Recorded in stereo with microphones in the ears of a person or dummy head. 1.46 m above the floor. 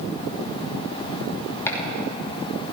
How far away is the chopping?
About 3 m.